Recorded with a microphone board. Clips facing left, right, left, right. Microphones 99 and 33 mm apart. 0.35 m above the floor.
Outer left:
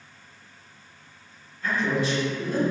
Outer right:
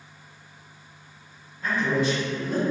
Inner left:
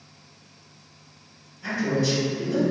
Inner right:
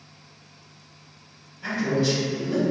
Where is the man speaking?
20° right (ahead or behind), 1.8 m.